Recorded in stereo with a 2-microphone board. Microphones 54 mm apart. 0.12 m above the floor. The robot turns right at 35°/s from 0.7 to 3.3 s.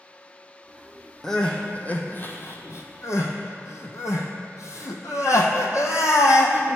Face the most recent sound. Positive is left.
turn(degrees=75)  # may be behind; listen again after turning